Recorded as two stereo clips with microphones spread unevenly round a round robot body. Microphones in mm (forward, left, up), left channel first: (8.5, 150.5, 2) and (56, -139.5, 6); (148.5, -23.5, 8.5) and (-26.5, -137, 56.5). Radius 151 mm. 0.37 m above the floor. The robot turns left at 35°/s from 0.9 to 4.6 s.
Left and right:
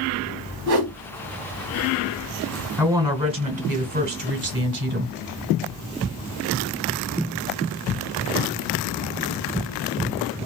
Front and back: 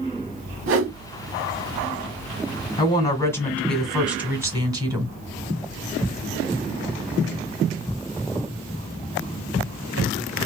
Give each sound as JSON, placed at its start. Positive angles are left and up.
{"t": 0.7, "sound": "a whoosh", "azimuth_deg": -125, "distance_m": 0.9}
{"t": 2.8, "sound": "a woman speaking", "azimuth_deg": 0, "distance_m": 1.5}